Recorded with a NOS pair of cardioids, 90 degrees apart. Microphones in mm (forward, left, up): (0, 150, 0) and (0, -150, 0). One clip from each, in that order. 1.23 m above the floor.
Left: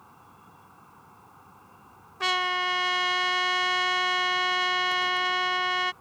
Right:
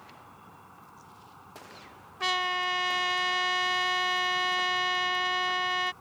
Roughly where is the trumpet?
Ahead.